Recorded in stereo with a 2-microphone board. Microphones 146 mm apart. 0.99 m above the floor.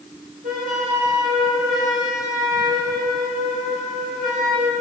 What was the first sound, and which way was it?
A flute, 75° right (ahead or behind).